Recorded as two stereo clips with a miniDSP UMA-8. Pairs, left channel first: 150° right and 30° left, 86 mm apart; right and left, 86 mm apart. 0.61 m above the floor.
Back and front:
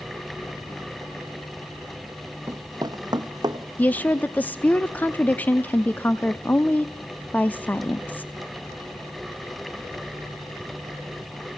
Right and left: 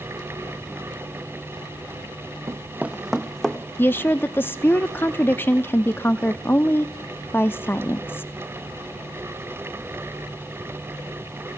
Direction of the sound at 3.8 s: 110° right.